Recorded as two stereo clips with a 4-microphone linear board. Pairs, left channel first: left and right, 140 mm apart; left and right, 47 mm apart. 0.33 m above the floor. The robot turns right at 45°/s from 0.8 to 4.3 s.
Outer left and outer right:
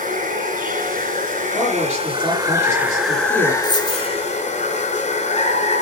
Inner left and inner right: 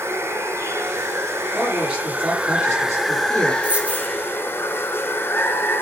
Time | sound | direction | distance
0.0 | running water | 100° right | 3 m
1.5 | a man speaking | straight behind | 7 m
3.6 | a dropped coin | 30° right (ahead or behind) | 2 m